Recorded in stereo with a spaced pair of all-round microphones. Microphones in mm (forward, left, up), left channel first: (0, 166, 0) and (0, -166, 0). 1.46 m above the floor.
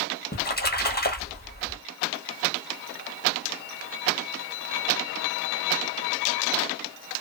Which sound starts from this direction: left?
A splash, at 0.3 s.